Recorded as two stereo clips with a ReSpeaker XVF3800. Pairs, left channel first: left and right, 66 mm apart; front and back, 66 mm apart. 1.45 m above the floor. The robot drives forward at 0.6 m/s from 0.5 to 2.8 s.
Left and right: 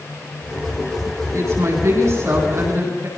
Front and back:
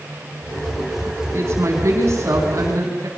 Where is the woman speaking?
135° right, 10 m.